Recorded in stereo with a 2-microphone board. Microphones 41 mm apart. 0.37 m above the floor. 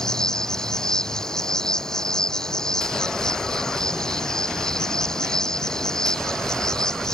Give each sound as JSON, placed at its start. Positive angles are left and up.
{"t": 0.0, "sound": "an insect", "side_deg": 15}